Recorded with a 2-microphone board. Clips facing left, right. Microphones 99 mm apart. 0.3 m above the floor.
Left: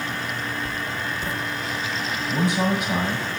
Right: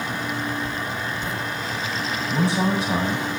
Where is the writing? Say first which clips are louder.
Right 1 dB; 10° left (ahead or behind), 1.6 m.